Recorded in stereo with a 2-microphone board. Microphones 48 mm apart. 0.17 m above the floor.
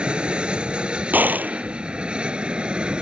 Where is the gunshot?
40° right (ahead or behind).